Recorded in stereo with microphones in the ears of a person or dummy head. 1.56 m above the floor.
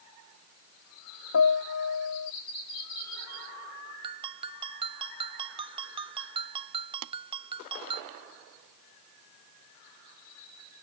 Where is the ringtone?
25° right (ahead or behind).